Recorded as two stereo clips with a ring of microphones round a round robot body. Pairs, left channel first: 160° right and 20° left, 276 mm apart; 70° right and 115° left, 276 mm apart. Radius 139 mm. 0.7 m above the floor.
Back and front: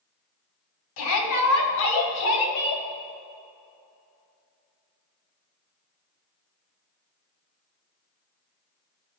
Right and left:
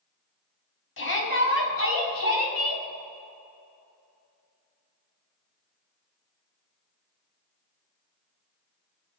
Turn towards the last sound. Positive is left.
turn(degrees=-100)